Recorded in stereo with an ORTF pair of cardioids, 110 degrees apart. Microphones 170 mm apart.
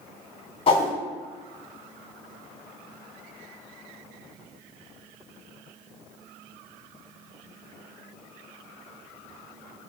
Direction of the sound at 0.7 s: 35° left.